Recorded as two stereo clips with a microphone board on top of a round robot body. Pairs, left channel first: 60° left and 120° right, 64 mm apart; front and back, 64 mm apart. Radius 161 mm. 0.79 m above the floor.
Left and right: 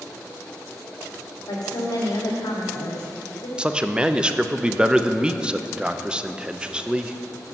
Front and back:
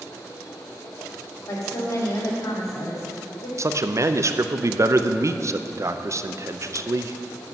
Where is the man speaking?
170° left, 0.8 m.